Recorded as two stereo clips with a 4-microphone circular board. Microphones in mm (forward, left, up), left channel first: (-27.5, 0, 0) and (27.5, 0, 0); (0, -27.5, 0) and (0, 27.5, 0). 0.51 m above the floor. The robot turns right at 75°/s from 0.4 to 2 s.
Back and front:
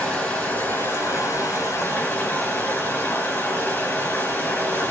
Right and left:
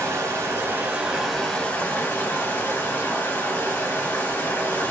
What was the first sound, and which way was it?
Running water, 110° left.